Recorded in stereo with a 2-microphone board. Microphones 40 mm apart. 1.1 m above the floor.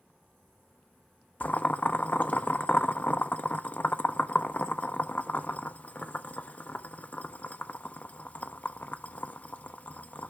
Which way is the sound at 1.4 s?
40° left (ahead or behind).